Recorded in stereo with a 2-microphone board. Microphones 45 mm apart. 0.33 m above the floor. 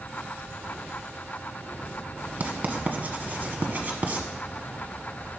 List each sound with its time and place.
2.4 s writing: 40° right (ahead or behind), 1.1 m